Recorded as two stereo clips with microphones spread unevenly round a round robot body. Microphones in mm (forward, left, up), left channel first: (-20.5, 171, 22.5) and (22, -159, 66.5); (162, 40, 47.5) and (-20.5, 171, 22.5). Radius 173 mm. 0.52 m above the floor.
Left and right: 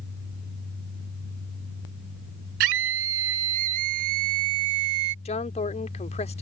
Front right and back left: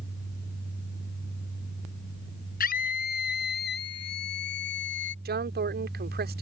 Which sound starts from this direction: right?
A scream, at 2.6 s.